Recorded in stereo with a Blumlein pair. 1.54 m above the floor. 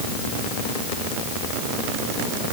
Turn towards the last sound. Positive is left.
No sound to turn to.